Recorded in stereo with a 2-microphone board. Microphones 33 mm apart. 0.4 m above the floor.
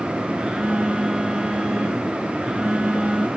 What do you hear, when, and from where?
0.4 s a phone buzzing: 30° right (ahead or behind), 2.5 m